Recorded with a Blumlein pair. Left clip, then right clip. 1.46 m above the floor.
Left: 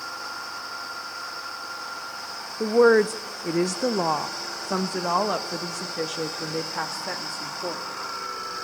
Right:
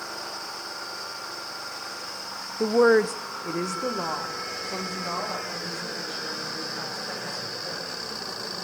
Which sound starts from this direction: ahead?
A woman speaking, at 2.6 s.